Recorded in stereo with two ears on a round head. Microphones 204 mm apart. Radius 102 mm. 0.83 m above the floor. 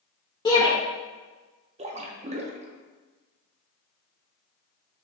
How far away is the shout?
About 1.0 m.